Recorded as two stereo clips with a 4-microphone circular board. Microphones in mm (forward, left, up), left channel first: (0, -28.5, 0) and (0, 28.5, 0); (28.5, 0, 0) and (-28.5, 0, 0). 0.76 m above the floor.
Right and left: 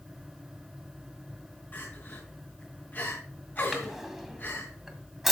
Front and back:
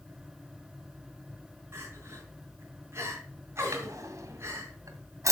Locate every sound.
1.7 s crying: 140° right, 4.5 m
3.7 s a drawer: 175° left, 1.9 m